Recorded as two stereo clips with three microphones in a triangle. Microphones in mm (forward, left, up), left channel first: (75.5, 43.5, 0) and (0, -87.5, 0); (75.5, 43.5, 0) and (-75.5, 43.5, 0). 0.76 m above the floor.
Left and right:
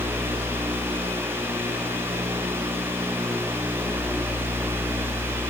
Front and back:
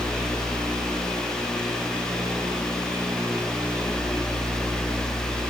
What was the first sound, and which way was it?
Only background noise.